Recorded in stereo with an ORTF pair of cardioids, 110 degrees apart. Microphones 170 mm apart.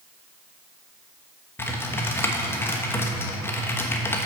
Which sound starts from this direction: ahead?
Typing on a keyboard, at 1.6 s.